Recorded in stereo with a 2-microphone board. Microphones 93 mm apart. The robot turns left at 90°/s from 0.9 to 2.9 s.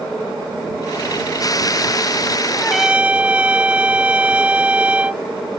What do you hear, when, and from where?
2.6 s a trumpet: 15° left (ahead or behind); by 5.2 s 15° right (ahead or behind)